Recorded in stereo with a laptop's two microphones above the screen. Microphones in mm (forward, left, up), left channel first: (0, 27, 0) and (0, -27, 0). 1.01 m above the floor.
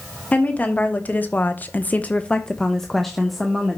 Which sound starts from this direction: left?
A woman speaking, at 0.3 s.